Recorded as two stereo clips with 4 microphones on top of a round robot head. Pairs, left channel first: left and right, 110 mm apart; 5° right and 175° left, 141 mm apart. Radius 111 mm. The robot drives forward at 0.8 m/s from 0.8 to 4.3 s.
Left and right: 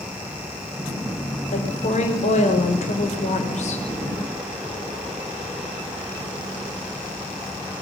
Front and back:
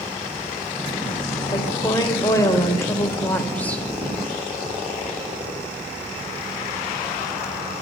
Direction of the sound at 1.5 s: 55° left.